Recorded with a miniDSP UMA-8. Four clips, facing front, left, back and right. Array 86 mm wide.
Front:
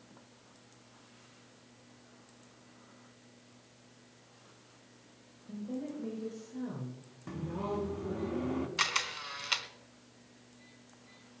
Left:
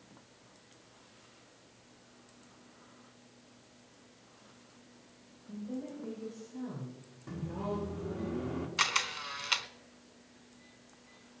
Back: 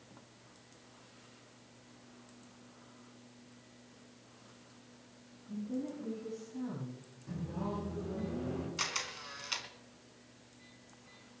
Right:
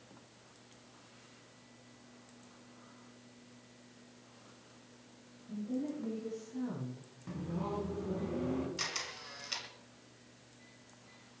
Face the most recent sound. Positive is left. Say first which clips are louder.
# left 9 dB, front 6 dB
turn(degrees=55)